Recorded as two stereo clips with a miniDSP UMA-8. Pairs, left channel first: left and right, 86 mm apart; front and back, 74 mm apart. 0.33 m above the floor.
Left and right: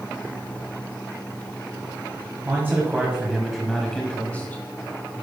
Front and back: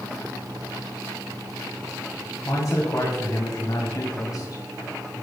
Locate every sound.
2.5 s a man speaking: 30° right, 1.8 m; by 4.6 s 25° left, 1.9 m